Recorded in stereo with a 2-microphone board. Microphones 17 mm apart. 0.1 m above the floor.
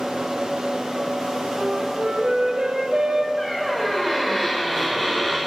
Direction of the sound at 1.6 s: 60° right (ahead or behind).